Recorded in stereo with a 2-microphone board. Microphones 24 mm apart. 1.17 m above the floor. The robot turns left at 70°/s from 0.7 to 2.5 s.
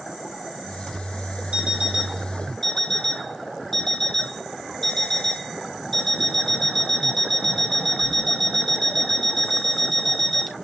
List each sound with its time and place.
1.5 s an alarm clock: 125° right, 4 m; by 10.6 s 165° left, 4 m